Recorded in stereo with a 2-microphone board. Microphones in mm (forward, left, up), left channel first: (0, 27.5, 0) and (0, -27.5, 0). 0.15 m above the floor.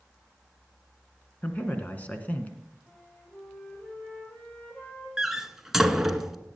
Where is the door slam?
5° right (ahead or behind), 1.0 m.